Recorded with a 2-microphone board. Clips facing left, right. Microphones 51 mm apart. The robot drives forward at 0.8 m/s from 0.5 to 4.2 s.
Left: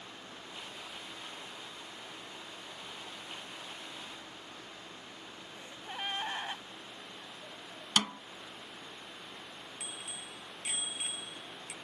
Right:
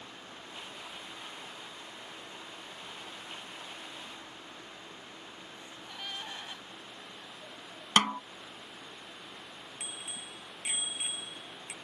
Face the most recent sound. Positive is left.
turn(degrees=-20)  # may be behind; listen again after turning